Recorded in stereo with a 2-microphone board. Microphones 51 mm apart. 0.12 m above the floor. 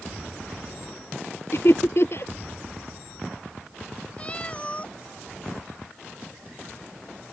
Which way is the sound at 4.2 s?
25° left (ahead or behind).